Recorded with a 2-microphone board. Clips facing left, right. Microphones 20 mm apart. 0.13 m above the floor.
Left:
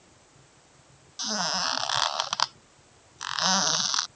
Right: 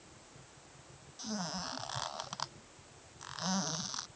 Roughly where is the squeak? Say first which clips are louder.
Left 12 dB; left.